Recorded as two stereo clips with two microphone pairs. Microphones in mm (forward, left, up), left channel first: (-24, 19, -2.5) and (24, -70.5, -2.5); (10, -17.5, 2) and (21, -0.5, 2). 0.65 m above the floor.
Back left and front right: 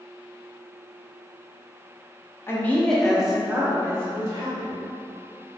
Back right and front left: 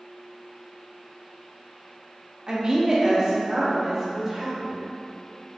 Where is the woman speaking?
65° left, 0.7 m; by 4.8 s 15° right, 1.3 m.